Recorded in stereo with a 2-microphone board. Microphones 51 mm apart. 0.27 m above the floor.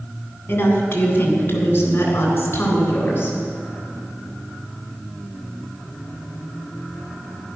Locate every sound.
0.5 s a woman speaking: 40° left (ahead or behind), 2.5 m; by 3.4 s 45° left (ahead or behind), 4 m